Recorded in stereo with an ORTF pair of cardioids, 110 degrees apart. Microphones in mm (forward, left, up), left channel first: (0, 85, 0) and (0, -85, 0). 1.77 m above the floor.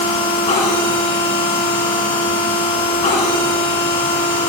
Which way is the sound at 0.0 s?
45° left.